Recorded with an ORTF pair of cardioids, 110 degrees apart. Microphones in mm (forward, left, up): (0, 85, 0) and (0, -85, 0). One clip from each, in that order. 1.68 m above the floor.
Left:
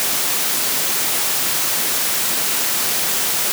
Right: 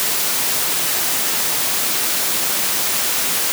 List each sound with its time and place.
Only background noise.